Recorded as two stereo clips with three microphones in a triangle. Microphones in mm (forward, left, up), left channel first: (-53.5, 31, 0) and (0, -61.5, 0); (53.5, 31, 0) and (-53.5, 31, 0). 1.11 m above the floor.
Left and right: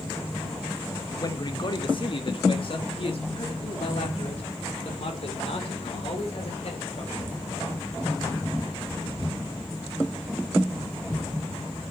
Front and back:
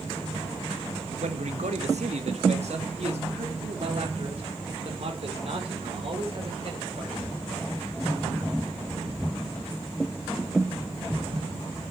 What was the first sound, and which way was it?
A man speaking, 175° left.